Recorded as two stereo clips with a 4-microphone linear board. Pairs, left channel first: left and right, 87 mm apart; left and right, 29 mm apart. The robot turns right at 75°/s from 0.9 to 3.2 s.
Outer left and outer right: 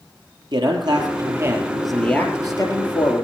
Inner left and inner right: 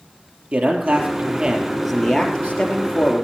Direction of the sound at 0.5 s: 75° right.